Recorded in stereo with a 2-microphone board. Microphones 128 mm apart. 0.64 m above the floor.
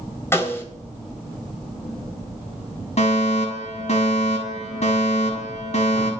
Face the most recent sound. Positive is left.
turn(degrees=55)  # may be behind; listen again after turning